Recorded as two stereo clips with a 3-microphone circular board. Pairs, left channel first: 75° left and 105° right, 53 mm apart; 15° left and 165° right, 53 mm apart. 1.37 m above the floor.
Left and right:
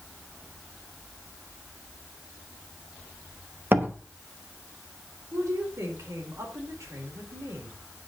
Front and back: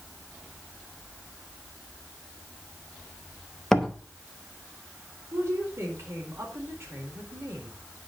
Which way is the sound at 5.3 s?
125° right.